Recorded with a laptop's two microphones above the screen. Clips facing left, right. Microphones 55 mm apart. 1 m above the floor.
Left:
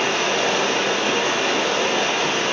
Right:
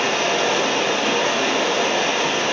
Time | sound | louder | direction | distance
0.0 | running water | right 1 dB | 25° right (ahead or behind) | 2 m